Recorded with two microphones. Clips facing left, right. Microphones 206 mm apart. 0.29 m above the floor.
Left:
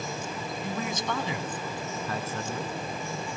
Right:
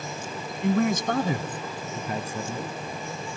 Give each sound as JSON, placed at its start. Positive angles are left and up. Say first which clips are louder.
{"t": 0.6, "sound": "a man speaking", "louder": "right 11 dB", "side_deg": -65, "distance_m": 1.9}